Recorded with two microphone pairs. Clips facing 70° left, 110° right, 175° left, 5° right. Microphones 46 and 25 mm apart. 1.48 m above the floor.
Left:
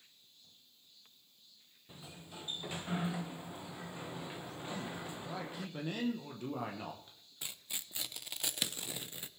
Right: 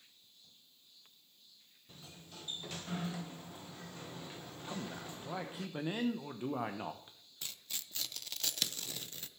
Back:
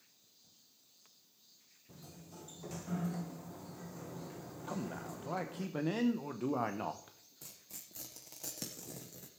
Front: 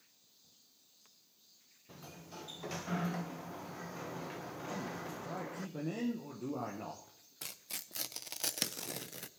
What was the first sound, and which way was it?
A sliding door, 5° left.